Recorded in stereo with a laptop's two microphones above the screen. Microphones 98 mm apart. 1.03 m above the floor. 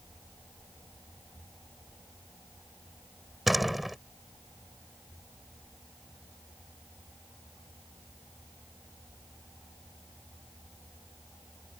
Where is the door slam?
Centre (ahead or behind).